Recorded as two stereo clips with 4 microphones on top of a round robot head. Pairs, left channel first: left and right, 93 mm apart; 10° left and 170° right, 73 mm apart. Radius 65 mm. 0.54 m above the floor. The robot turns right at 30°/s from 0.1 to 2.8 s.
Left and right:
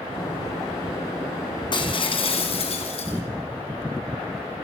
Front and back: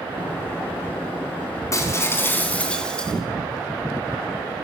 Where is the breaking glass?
55° left, 4 m; by 3.2 s 85° left, 4 m.